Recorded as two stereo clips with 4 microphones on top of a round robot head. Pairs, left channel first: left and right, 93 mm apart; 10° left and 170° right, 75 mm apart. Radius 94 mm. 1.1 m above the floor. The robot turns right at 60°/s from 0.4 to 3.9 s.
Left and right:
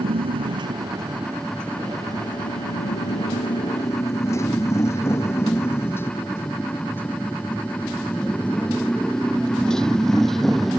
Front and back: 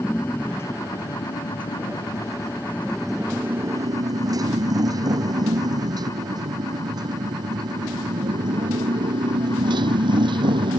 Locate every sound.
0.0 s a motorcycle: 65° right; by 10.8 s straight behind